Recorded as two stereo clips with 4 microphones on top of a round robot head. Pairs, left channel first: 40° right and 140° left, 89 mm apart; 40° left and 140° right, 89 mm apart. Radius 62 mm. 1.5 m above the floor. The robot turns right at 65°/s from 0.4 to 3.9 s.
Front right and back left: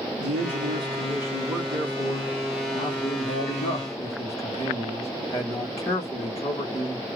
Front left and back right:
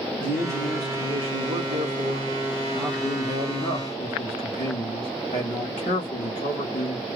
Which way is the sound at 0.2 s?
155° left.